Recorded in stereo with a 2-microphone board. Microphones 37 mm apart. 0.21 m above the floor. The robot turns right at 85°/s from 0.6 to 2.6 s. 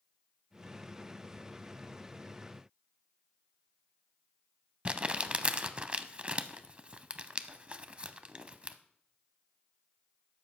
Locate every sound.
4.8 s crumpling: 30° right (ahead or behind), 0.6 m